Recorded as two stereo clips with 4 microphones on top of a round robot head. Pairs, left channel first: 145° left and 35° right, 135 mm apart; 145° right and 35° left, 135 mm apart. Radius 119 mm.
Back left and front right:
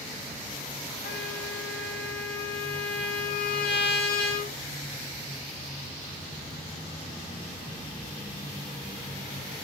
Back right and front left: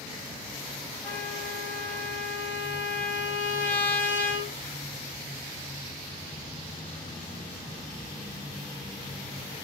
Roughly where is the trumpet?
Behind left.